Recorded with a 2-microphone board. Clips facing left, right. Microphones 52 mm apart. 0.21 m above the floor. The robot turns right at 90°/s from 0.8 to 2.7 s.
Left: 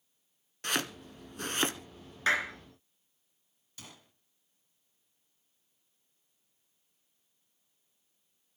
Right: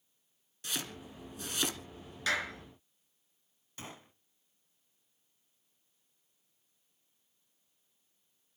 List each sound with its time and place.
0.6 s chopping: 55° left (ahead or behind), 1.3 m; by 1.8 s 25° left (ahead or behind), 1.3 m
2.3 s a clap: 30° left (ahead or behind), 1.9 m; by 2.6 s 5° left (ahead or behind), 1.9 m
3.8 s a gunshot: 30° right (ahead or behind), 0.8 m